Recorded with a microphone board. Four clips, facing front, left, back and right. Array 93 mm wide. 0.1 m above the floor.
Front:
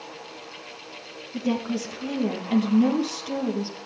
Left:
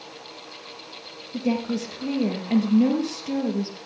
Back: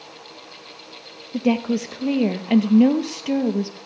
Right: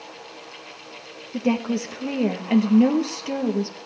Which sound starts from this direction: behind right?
A woman speaking, at 1.3 s.